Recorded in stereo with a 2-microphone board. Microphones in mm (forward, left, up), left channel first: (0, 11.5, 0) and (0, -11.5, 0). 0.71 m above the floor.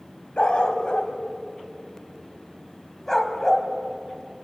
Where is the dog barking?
60° left (ahead or behind), 2 m; by 3.7 s 15° left (ahead or behind), 2 m.